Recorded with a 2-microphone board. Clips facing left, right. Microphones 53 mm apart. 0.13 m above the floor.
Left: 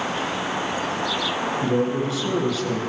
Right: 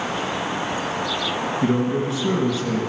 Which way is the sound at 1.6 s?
35° right (ahead or behind).